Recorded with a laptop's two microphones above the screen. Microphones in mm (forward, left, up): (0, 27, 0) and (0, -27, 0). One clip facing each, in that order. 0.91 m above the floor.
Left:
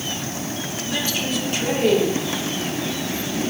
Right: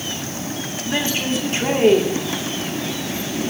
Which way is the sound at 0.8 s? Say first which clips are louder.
Right 4 dB; 35° right (ahead or behind).